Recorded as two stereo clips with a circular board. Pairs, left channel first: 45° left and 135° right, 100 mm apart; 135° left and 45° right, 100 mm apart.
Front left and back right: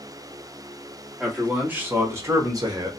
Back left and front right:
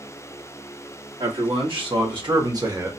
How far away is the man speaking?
About 1.4 m.